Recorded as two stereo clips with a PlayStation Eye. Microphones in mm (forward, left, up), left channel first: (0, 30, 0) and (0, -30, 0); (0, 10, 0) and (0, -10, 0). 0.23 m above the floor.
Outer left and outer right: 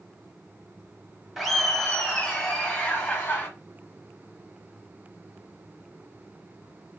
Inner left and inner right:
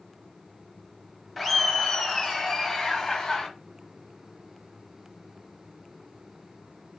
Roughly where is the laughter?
Centre.